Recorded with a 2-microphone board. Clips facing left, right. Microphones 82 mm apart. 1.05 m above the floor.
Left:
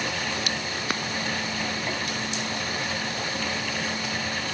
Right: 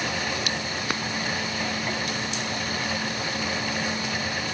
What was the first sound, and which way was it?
Only background noise.